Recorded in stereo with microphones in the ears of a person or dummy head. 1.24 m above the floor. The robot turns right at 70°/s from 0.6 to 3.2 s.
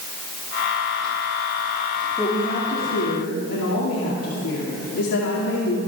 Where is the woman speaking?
10° left, 2.5 m; by 5.8 s 85° left, 2.5 m.